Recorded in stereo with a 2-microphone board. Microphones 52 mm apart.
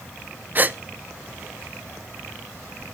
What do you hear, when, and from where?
0.6 s a gasp: 35° right (ahead or behind), 0.5 m